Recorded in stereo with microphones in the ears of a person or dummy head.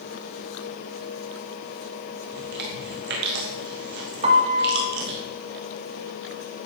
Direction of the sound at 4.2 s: 40° right (ahead or behind).